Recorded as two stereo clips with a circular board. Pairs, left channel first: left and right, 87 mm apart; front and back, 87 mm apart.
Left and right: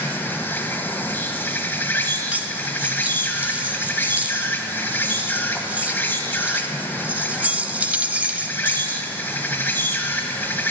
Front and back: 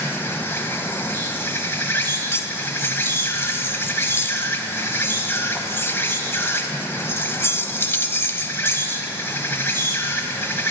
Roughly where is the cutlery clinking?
Ahead right.